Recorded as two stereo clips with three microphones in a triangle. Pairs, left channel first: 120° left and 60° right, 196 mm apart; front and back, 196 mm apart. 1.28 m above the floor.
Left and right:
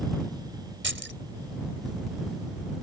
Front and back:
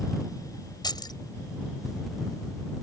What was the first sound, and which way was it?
Keys jangling, 70° right.